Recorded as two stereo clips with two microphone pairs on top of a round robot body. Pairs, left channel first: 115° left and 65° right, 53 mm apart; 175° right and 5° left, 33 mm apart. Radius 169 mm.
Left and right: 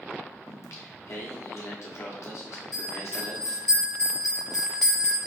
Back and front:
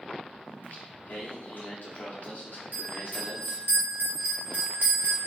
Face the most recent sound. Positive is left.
turn(degrees=30)